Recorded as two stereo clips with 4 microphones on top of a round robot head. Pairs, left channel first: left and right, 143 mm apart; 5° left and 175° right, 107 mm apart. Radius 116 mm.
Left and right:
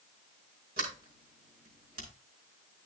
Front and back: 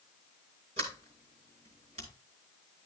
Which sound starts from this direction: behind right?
A sliding door, at 0.8 s.